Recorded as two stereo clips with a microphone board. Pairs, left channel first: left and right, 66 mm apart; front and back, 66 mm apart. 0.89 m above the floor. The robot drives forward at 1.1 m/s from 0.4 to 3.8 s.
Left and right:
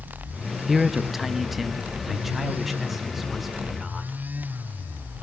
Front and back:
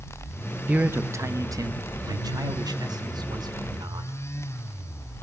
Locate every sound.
0.7 s a man speaking: straight behind, 0.9 m